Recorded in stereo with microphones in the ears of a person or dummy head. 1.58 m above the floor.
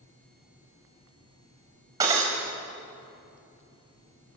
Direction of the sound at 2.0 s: 20° right (ahead or behind).